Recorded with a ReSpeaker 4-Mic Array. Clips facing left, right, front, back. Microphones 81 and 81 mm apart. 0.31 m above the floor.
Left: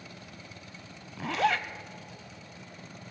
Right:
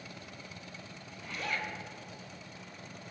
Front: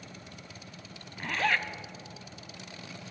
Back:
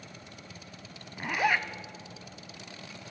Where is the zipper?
100° left, 0.6 m.